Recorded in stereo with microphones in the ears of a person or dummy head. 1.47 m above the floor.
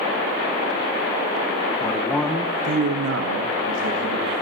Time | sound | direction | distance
1.8 | a man speaking | 25° left (ahead or behind) | 1.1 m